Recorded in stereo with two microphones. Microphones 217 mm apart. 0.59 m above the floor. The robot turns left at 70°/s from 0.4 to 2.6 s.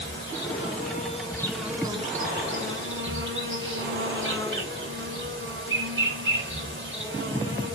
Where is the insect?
80° left, 2.5 m; by 7.8 s 70° right, 2.5 m.